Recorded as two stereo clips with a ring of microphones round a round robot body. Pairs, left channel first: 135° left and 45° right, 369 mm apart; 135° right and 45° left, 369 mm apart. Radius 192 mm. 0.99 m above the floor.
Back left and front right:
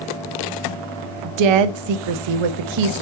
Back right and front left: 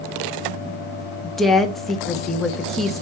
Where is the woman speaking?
45° right, 1.0 m.